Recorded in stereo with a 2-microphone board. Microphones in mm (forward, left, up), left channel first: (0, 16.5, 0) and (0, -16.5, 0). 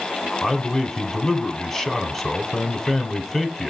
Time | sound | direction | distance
0.4 | a man speaking | 10° left (ahead or behind) | 1.3 m